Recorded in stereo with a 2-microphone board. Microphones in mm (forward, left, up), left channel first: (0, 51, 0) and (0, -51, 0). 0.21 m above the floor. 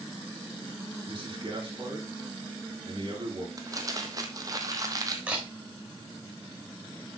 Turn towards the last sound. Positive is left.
turn(degrees=-10)  # may be behind; listen again after turning